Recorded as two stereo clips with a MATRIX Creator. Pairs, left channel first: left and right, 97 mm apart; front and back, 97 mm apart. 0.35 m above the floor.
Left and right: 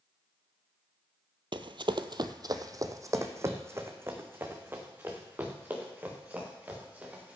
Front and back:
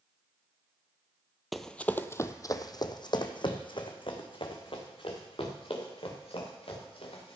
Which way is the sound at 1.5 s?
90° right.